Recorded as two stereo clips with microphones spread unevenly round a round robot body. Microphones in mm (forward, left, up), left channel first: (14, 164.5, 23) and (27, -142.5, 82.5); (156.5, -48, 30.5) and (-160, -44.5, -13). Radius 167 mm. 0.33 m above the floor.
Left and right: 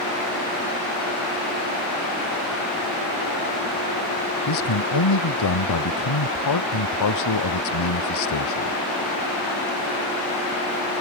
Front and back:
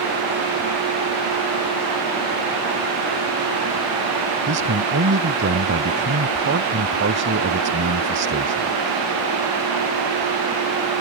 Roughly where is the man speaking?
Behind left.